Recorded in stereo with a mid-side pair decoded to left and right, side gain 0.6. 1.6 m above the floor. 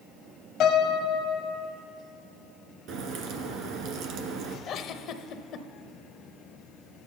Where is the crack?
65° right, 1.6 m.